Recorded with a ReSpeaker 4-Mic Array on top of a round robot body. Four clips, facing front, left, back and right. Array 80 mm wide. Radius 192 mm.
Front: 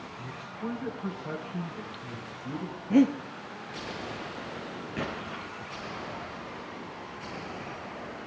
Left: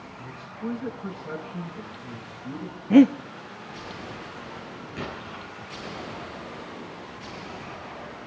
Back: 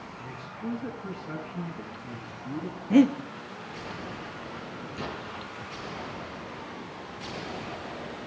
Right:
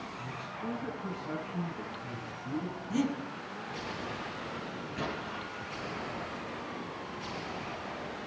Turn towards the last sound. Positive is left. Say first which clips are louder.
# left 1 dB, front 2 dB
turn(degrees=10)